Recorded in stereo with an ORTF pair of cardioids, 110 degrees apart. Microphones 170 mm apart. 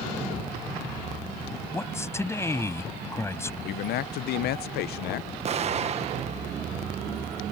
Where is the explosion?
40° right.